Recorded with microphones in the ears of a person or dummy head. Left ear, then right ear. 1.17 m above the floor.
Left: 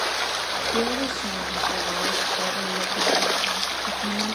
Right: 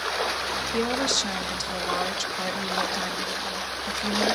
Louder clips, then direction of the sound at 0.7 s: Even; 50° right (ahead or behind).